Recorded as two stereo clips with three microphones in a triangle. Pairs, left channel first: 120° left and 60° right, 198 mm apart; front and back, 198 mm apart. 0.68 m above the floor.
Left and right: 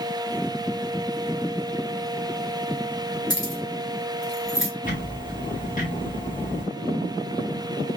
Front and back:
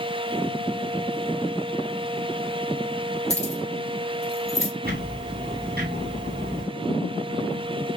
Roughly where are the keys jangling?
Ahead right.